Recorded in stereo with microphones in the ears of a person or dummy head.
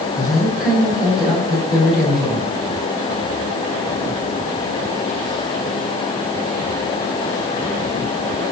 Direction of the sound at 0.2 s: 5° right (ahead or behind).